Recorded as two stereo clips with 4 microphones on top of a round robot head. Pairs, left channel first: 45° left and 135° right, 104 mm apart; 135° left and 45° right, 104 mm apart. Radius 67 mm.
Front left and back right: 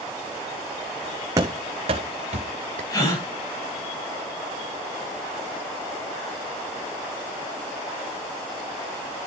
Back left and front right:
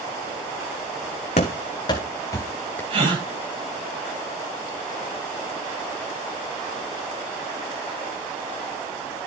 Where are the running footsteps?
165° left, 1.3 m; by 2.8 s 150° right, 2 m.